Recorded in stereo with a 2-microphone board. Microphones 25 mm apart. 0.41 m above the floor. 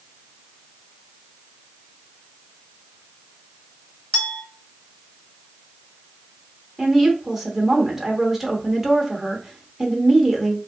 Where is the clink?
40° left (ahead or behind), 1.3 m.